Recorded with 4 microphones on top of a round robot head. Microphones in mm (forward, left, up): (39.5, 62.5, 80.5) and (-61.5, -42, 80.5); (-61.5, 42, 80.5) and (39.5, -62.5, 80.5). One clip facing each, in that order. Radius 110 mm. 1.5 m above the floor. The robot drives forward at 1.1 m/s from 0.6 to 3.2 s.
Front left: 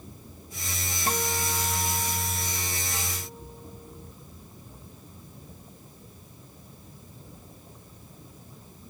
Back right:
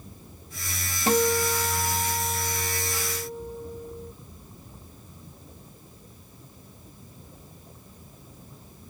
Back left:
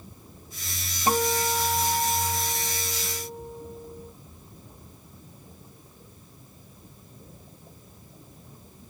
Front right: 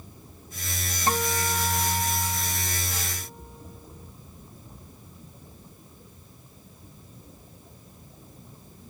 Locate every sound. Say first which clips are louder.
1.1 s a guitar: back right 8 dB, back left 3 dB; 150° right; by 4.1 s 160° right